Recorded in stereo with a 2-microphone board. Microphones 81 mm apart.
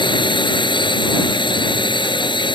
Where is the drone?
75° left (ahead or behind).